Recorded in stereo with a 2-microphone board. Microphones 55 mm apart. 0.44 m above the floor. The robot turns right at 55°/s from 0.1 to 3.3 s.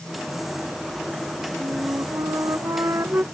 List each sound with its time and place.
1.6 s a flute: 130° right; by 3.2 s 40° right